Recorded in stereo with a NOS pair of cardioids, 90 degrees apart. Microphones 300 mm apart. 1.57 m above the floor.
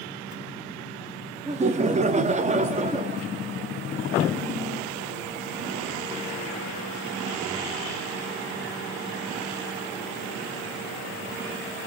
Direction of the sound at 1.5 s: 25° right.